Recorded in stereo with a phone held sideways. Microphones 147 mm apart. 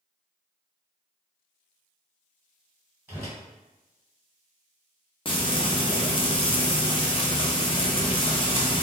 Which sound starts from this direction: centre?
A whoosh, at 3.1 s.